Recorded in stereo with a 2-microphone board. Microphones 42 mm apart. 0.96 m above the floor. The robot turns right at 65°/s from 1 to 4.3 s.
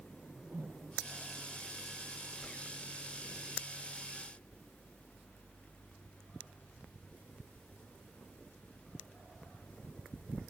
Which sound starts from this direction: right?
A whoosh, at 0.1 s.